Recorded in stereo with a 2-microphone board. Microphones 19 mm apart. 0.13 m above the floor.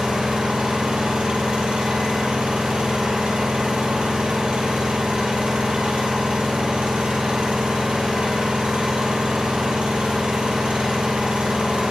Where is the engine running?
70° right (ahead or behind), 1.4 m.